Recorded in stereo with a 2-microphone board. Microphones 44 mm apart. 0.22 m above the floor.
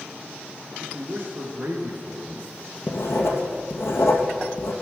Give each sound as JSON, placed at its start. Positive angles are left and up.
{"t": 0.8, "sound": "a man speaking", "side_deg": -50, "distance_m": 3.0}
{"t": 2.9, "sound": "writing", "side_deg": 70, "distance_m": 2.5}